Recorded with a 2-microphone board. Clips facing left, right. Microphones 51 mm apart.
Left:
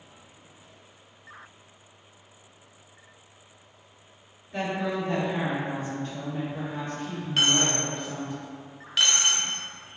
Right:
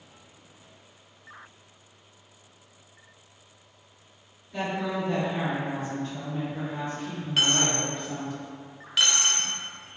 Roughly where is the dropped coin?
Centre.